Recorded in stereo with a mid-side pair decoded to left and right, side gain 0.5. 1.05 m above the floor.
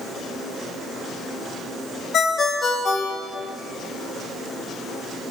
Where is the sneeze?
No sneeze in this recording.